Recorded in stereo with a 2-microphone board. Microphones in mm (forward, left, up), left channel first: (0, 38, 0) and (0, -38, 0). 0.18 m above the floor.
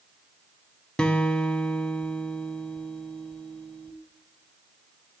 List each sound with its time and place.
1.0 s a guitar: 15° left (ahead or behind), 0.8 m